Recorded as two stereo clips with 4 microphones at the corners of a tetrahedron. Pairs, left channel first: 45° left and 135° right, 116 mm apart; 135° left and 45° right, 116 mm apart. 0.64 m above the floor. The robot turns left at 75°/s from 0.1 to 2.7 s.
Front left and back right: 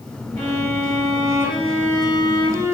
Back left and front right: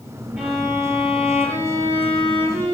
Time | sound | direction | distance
0.4 | a violin | 125° right | 1.9 m